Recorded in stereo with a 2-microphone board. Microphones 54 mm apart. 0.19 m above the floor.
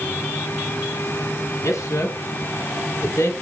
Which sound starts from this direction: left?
A man speaking, at 1.6 s.